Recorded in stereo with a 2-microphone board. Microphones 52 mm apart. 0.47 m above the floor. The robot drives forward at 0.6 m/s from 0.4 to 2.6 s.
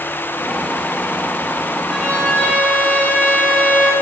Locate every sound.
1.9 s a violin: 25° left (ahead or behind), 3.5 m; by 3.9 s 30° left (ahead or behind), 3 m